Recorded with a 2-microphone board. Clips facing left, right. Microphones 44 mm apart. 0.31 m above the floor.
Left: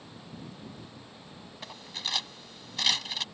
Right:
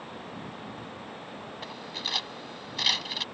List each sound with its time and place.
1.6 s cutlery clinking: 5° right (ahead or behind)